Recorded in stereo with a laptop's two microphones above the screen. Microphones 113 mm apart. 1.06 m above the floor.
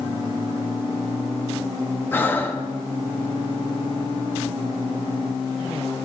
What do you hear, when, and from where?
2.1 s breathing: 20° left (ahead or behind), 0.9 m